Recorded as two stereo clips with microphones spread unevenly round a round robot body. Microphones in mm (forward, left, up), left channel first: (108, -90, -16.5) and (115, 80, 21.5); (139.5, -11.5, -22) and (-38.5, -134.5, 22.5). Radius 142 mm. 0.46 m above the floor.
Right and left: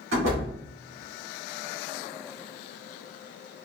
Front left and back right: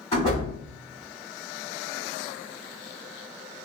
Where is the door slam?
105° left, 1.7 m.